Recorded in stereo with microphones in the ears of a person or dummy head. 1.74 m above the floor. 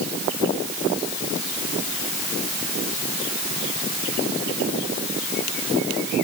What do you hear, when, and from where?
Only background noise.